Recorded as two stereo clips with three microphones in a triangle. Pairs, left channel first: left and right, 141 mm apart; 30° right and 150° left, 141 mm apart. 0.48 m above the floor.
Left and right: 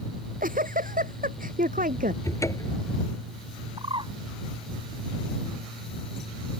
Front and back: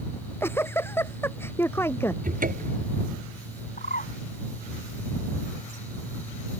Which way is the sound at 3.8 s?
35° right.